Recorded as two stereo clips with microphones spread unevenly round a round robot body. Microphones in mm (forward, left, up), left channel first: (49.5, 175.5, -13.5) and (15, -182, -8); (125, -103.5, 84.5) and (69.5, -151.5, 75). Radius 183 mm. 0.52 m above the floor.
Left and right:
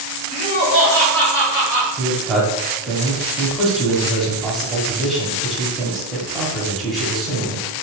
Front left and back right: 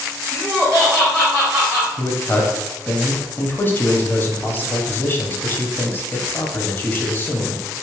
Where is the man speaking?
5° right, 0.8 m.